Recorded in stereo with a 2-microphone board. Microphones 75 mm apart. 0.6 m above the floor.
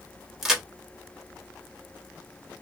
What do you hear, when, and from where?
0.4 s a crack: 5° right (ahead or behind), 1.1 m